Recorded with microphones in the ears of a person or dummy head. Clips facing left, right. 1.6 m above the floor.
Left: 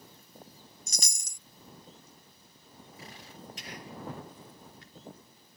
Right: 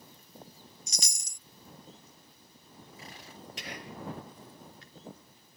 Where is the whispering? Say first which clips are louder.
Right 2 dB; 65° right (ahead or behind).